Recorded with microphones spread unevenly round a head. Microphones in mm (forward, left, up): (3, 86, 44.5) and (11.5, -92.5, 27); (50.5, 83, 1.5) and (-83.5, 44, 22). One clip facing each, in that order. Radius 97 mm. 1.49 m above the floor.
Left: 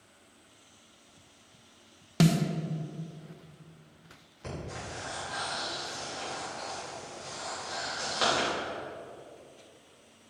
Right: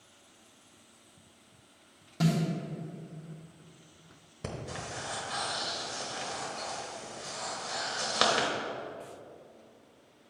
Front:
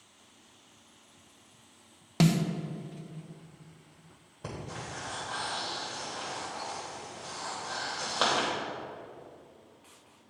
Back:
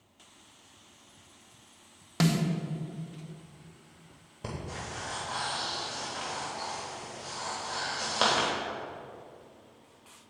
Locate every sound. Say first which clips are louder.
2.2 s a snare drum: left 4 dB, front 2 dB; 90° left, 0.6 m
4.4 s breathing: even, back 1 dB; 95° right, 1.0 m